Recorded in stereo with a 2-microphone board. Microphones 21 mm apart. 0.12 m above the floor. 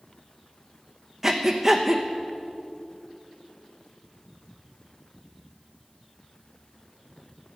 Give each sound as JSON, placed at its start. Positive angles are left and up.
{"t": 1.2, "sound": "breathing", "side_deg": -15, "distance_m": 1.2}